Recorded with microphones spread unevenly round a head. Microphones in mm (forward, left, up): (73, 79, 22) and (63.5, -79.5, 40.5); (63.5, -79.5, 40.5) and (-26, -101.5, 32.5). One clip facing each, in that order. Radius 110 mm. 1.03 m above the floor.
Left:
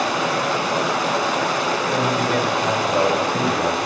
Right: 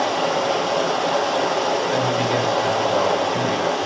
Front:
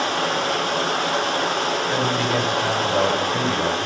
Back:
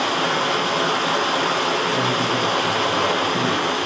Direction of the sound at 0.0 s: 125° left.